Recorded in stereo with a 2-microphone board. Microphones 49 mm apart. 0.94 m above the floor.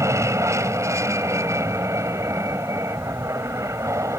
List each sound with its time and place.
0.0 s an aircraft: 75° right (ahead or behind)